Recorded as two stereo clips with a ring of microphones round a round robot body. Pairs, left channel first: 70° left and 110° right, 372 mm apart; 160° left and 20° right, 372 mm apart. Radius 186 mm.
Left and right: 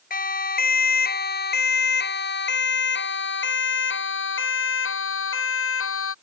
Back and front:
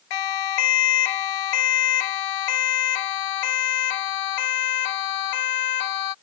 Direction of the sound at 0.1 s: 135° left.